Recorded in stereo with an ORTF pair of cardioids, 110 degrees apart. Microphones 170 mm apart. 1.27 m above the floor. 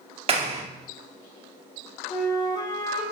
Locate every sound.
0.3 s a clap: 35° right, 2.5 m
2.1 s a flute: 25° left, 3.5 m